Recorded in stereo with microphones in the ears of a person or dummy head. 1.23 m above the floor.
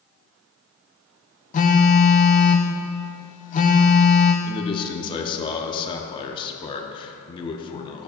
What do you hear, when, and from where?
1.5 s a phone buzzing: 40° left (ahead or behind), 0.6 m
4.4 s a man speaking: 30° left (ahead or behind), 0.7 m